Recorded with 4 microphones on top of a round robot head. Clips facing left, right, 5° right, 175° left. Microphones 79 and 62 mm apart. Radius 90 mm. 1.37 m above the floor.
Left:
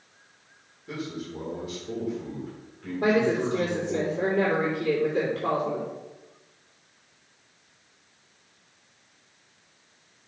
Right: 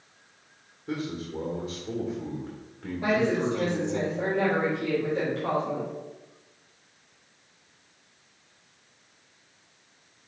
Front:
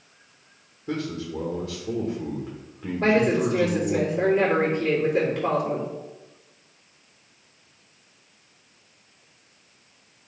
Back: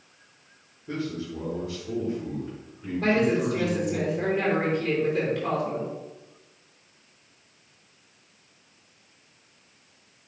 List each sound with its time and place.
0.9 s a man speaking: 20° right, 1.7 m
3.0 s a woman speaking: 40° left, 2.5 m